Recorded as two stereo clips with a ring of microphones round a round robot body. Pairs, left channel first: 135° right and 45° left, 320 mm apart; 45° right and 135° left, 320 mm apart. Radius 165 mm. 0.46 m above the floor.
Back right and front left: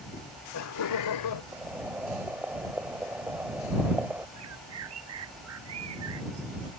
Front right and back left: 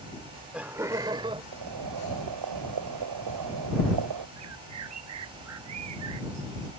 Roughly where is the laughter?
Right.